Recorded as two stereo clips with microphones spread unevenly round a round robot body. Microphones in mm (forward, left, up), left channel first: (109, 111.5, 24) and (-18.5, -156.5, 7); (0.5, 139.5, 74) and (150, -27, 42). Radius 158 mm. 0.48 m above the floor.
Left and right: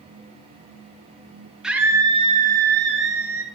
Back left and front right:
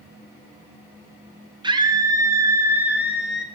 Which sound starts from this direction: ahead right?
A scream, at 1.6 s.